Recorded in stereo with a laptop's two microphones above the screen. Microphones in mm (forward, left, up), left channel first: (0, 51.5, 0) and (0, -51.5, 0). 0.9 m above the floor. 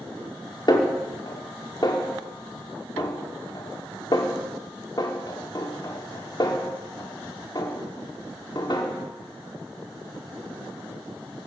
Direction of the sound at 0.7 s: 45° left (ahead or behind).